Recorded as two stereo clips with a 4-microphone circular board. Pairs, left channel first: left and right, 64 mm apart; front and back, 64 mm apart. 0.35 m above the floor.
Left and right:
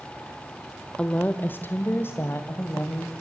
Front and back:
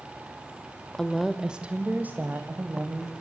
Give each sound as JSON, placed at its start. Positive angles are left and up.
{"t": 1.0, "sound": "a woman speaking", "azimuth_deg": 65, "distance_m": 0.8}